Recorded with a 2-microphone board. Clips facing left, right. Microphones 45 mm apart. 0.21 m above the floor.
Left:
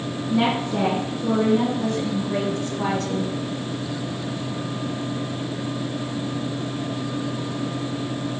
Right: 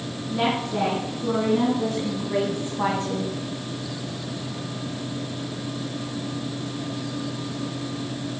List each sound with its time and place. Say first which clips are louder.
0.3 s a woman speaking: left 2 dB; 10° left (ahead or behind), 2 m; by 3.3 s 30° right (ahead or behind), 1.4 m